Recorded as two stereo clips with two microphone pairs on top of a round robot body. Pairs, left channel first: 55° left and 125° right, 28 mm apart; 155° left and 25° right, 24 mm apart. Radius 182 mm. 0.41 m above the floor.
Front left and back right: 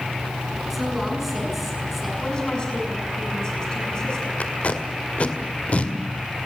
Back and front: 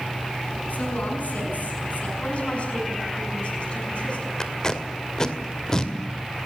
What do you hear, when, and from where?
0.7 s a woman speaking: 150° left, 7.5 m
2.2 s a woman speaking: 115° left, 6 m
4.4 s tape being pulled: 90° left, 2 m